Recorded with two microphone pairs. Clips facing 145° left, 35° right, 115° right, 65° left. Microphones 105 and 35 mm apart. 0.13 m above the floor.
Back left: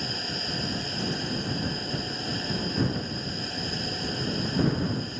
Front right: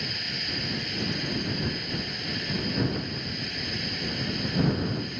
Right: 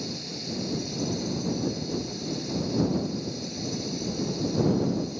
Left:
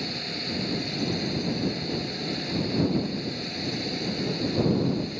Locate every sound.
0.0 s a drone: 95° left